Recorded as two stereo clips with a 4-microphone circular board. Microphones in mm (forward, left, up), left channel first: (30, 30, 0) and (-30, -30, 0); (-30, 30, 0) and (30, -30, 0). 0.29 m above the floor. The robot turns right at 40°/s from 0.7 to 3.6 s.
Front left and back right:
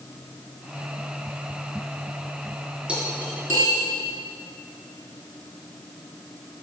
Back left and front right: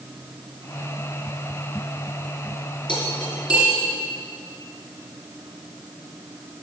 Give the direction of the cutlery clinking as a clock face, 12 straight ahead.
7 o'clock.